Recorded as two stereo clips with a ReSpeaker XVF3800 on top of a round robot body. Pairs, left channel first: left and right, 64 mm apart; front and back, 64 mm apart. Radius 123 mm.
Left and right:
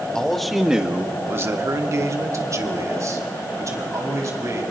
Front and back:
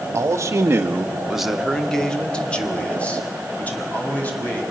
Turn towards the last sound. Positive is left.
turn(degrees=-60)